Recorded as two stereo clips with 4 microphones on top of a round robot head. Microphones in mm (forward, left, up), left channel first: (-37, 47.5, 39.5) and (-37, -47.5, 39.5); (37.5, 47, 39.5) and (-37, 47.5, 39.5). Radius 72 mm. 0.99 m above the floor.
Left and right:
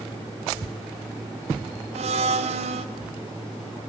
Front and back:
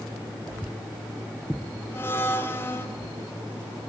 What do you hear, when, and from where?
1.9 s a blender: 70° right, 2 m